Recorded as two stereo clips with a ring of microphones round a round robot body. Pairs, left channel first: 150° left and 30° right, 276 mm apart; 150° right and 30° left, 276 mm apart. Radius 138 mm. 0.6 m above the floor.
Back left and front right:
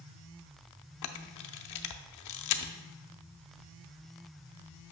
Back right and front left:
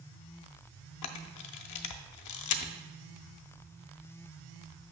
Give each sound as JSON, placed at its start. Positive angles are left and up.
{"t": 1.0, "sound": "a camera shutter", "azimuth_deg": 180, "distance_m": 0.6}